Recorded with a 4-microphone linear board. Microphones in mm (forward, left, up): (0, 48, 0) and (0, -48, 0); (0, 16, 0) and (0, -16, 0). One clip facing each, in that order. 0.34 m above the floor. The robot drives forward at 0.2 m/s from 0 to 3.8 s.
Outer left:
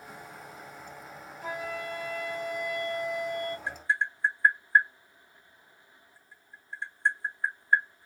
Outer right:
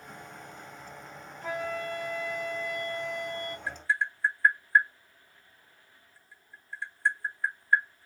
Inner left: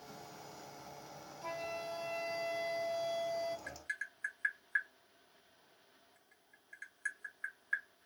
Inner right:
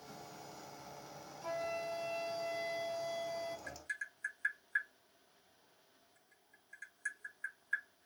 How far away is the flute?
About 1.0 m.